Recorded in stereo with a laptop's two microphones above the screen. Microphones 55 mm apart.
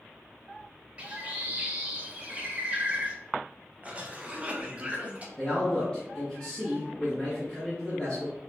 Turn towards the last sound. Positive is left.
turn(degrees=15)  # may be behind; listen again after turning